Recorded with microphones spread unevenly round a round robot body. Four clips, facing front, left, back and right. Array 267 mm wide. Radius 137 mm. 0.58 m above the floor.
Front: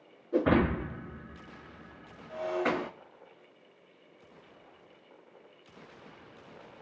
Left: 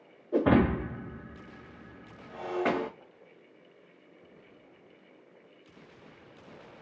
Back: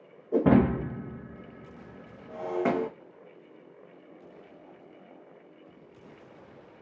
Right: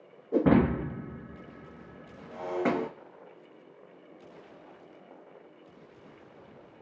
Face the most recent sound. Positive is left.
turn(degrees=-145)